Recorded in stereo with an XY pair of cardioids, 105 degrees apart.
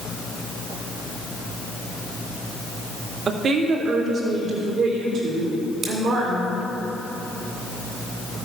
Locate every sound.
3.3 s a woman speaking: 45° right, 1.6 m; by 6.5 s 70° right, 4.5 m
5.8 s scissors: 60° right, 3 m